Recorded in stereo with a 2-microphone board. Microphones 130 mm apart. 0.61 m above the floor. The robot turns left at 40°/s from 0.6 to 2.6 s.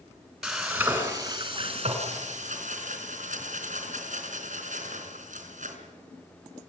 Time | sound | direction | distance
0.4 | frying | 5° right | 4 m